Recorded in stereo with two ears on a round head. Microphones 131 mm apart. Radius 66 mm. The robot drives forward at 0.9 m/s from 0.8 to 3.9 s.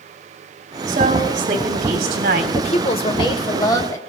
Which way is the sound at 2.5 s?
50° left (ahead or behind).